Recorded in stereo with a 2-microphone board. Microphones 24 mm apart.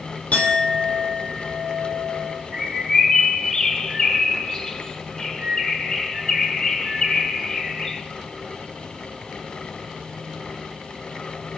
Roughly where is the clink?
Left.